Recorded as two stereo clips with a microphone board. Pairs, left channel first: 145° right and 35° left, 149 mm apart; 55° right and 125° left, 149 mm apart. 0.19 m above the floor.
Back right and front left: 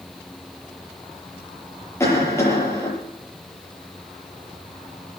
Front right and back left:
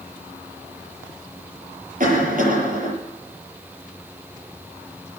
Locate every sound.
2.0 s a cough: 145° left, 6.5 m